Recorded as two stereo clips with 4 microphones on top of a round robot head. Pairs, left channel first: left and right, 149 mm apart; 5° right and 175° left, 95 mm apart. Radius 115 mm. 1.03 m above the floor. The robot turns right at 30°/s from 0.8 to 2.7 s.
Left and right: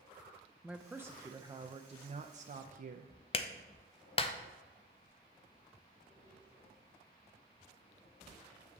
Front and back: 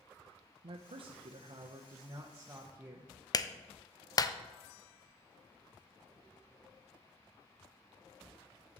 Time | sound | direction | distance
0.6 | a man speaking | 170° right | 0.6 m
3.3 | a clap | 45° left | 0.6 m